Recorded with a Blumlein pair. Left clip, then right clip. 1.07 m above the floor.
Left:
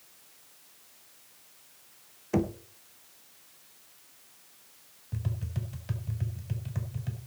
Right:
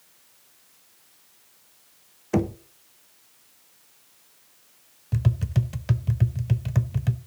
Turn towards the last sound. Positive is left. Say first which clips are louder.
# right 10 dB
turn(degrees=-60)